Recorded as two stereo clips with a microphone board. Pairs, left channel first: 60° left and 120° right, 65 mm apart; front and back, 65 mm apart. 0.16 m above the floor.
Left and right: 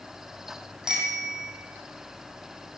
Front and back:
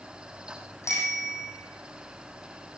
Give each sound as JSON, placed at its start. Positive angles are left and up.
{"t": 0.8, "sound": "a bicycle bell", "azimuth_deg": -40, "distance_m": 4.5}